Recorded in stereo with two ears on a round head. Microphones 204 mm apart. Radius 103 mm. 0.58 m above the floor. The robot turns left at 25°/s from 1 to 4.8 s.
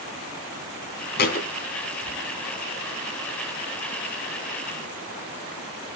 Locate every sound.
1.2 s a thud: 45° left (ahead or behind), 2.5 m; by 1.5 s 35° left (ahead or behind), 2.5 m